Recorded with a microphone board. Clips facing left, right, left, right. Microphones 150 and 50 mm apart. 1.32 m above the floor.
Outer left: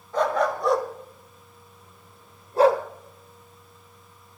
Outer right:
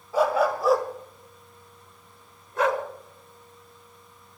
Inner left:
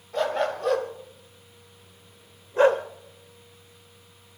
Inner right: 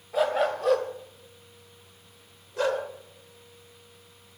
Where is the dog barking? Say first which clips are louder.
Outer right 1 dB, inner right 1 dB; 10° right (ahead or behind), 1.9 m; by 2.8 s 35° left (ahead or behind), 1.3 m.